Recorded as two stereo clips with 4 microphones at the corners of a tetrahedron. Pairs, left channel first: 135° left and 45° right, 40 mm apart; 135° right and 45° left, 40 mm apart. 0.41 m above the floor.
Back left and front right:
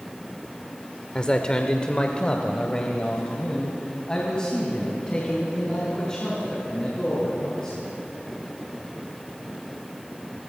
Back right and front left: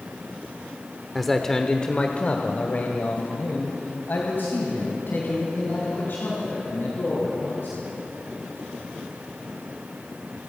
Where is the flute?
No flute in this recording.